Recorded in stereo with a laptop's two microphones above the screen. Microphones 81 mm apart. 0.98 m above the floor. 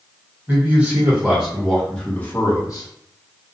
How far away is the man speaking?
About 1.2 m.